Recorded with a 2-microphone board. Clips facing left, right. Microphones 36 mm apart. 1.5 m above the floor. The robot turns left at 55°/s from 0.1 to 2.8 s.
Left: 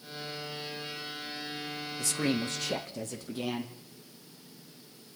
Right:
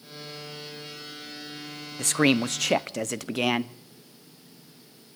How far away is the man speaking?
About 0.6 m.